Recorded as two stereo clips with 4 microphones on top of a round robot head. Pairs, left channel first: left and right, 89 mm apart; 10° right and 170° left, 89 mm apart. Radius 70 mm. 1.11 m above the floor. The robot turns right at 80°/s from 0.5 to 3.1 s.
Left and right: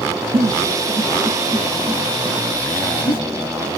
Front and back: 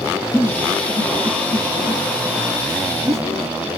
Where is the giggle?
85° right, 1.4 m; by 3.2 s 125° left, 1.4 m.